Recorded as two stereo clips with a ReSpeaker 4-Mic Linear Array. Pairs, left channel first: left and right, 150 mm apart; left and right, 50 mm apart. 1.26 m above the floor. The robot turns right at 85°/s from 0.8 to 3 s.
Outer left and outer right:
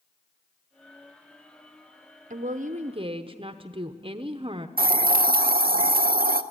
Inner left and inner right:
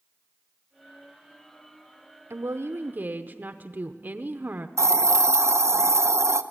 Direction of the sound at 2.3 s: 105° right.